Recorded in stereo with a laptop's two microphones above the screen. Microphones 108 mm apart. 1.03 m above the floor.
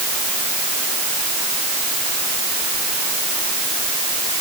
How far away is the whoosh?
No whoosh in this recording.